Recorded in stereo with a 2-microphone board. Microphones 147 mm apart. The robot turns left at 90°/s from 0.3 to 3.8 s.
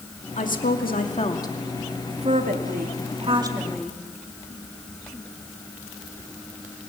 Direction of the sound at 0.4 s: 125° left.